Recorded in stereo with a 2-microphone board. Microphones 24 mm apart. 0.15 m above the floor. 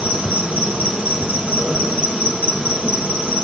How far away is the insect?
About 2.5 m.